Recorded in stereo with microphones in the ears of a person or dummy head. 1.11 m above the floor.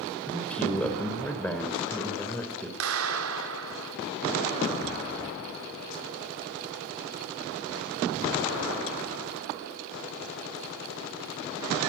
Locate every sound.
0.3 s a man speaking: 10° left (ahead or behind), 4.5 m
2.8 s a clap: 80° right, 2.5 m